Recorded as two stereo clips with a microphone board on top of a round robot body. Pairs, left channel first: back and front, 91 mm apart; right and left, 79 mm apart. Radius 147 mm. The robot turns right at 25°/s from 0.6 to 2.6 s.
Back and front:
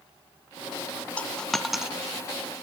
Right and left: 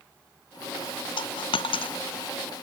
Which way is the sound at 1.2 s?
105° right.